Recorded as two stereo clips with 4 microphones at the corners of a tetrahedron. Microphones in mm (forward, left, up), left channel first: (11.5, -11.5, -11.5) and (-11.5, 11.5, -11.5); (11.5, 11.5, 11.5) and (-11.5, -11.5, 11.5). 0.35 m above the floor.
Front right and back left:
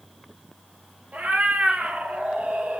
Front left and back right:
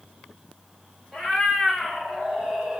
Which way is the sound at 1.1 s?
125° left.